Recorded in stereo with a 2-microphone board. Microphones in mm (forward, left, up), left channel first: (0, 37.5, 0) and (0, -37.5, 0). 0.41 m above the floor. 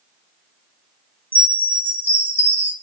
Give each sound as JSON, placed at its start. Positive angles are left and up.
{"t": 1.3, "sound": "a chime", "side_deg": -25, "distance_m": 0.7}